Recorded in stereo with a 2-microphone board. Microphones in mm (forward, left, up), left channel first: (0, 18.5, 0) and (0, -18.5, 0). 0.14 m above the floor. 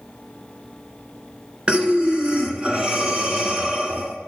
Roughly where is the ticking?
No ticking in this recording.